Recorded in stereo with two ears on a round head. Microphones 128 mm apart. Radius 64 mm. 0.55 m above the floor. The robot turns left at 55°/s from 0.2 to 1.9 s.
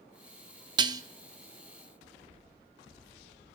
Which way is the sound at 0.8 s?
35° right (ahead or behind).